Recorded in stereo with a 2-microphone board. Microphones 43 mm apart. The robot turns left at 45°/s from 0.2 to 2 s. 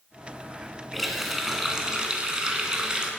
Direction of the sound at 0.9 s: Centre (ahead or behind).